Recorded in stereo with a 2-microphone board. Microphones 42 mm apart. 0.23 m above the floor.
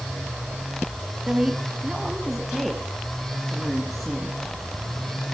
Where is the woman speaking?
20° right (ahead or behind), 1.4 m; by 4.4 s 5° left (ahead or behind), 3 m.